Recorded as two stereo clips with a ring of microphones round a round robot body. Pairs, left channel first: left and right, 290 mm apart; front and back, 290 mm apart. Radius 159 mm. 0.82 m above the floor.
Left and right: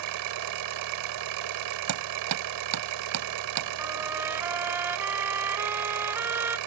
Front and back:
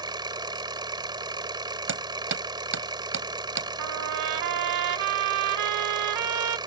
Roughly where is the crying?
I don't hear crying.